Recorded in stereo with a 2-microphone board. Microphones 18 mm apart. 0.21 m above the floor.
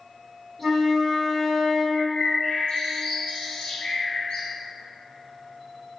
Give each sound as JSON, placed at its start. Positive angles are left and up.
{"t": 0.6, "sound": "a flute", "side_deg": 0, "distance_m": 1.9}
{"t": 1.9, "sound": "a bird", "side_deg": 75, "distance_m": 1.3}